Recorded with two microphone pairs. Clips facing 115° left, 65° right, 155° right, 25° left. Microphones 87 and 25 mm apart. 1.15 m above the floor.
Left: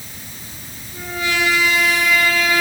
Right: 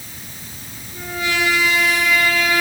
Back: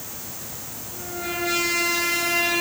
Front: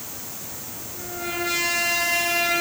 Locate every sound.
Only background noise.